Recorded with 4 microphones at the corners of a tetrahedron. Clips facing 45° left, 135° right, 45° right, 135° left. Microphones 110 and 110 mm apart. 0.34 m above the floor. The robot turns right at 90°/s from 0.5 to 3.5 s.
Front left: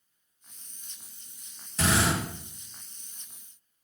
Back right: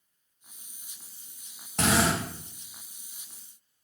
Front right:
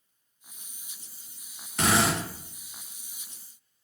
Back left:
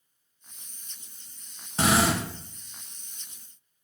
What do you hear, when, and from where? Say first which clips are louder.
1.8 s a drill: back right 1 dB, back left 2 dB; 170° right, 0.9 m; by 2.2 s 130° right, 0.9 m